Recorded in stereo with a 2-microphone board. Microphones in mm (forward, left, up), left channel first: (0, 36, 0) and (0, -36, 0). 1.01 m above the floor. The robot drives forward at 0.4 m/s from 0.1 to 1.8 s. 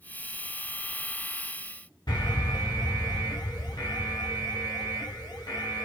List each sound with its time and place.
2.1 s an alarm: 80° left, 2.5 m